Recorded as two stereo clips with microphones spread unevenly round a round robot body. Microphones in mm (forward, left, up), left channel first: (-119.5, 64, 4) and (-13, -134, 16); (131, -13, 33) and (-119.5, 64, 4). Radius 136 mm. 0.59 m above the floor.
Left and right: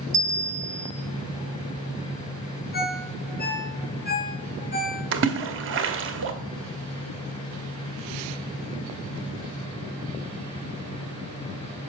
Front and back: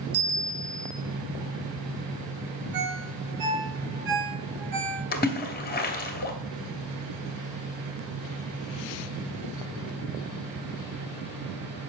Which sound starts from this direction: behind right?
A bell, at 0.1 s.